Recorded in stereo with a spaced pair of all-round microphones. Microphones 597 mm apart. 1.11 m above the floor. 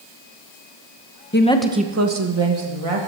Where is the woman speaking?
20° left (ahead or behind), 0.9 m; by 3.1 s 65° right (ahead or behind), 1.6 m.